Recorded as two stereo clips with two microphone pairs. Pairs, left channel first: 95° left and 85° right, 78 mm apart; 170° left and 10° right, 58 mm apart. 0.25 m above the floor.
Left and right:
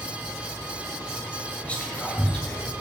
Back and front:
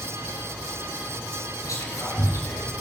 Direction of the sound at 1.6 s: 165° left.